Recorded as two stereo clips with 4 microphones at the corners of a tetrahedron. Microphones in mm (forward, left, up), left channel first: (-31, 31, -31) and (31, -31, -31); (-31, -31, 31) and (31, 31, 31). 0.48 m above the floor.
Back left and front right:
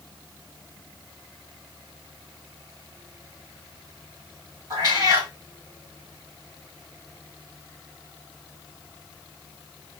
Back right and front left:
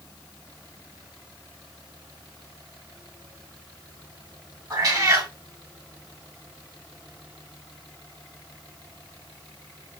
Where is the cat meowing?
Straight ahead, 1.3 m.